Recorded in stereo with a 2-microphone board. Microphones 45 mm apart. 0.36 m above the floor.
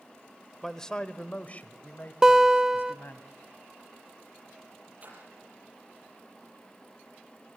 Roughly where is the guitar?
Centre.